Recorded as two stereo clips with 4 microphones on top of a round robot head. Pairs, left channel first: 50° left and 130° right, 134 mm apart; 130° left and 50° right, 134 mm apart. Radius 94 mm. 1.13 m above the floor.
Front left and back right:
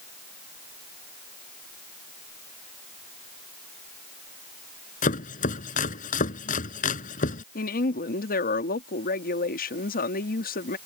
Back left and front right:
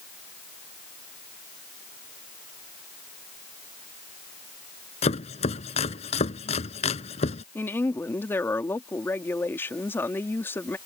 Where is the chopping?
80° left.